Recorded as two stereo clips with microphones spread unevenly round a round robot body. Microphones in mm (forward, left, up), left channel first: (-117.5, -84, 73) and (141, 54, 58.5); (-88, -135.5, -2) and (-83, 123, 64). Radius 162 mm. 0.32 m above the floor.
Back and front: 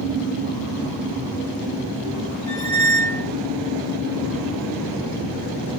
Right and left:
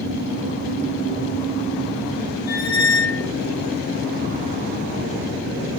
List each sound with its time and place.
2.5 s a squeak: 70° right, 2 m